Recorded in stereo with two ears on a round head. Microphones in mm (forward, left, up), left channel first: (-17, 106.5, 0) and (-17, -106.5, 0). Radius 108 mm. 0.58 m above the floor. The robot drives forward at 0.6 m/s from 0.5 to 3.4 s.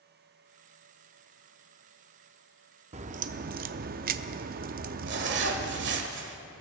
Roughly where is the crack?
Right.